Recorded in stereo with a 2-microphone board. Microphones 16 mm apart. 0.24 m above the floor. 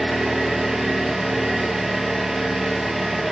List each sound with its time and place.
0.0 s an engine running: 35° right (ahead or behind), 4 m